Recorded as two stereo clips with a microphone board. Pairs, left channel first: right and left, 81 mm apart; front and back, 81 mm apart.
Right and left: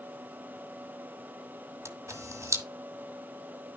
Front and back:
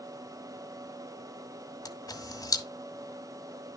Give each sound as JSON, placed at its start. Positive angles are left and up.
{"t": 1.9, "sound": "a camera shutter", "azimuth_deg": 40, "distance_m": 1.1}